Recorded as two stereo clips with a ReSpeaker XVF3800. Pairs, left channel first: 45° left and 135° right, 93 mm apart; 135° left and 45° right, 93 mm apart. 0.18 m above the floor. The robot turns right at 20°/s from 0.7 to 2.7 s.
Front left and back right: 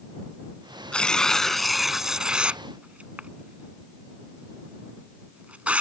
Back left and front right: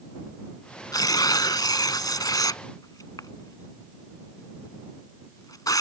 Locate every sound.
0.9 s tearing paper: 120° left; by 5.8 s 155° left